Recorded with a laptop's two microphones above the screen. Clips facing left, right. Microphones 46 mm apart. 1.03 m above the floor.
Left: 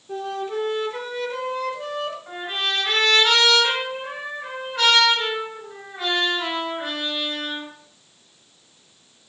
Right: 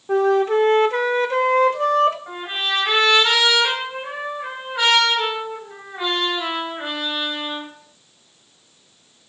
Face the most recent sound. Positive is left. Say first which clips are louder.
# right 2 dB
turn(degrees=-15)  # may be behind; listen again after turning